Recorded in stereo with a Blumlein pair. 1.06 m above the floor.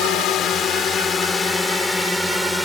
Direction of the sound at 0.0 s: 35° left.